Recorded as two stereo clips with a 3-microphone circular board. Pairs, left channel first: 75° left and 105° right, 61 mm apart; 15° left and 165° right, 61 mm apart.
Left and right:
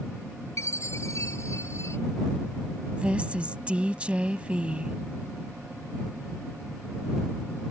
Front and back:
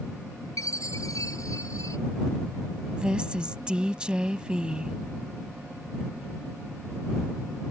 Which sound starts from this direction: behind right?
A woman speaking, at 3.0 s.